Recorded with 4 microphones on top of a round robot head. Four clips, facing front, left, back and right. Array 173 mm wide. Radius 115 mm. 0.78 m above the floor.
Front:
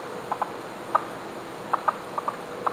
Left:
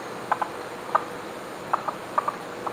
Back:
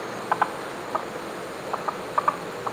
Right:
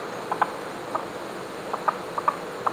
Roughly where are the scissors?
I don't hear scissors.